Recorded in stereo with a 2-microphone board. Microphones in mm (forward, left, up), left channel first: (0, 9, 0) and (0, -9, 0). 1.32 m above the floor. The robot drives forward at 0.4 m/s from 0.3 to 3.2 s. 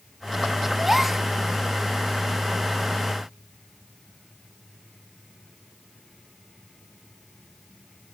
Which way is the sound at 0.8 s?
10° right (ahead or behind).